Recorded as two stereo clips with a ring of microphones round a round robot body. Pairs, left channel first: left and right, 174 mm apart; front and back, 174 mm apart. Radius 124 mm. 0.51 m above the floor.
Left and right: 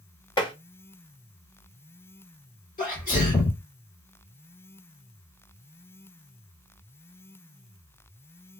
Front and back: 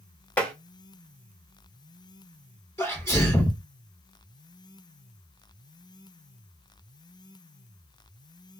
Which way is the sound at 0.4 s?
70° left.